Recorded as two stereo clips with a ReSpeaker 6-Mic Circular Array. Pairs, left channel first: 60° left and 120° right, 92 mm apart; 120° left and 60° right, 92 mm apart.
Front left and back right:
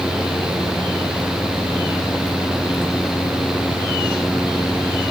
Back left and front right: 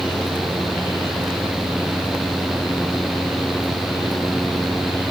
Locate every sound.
Only background noise.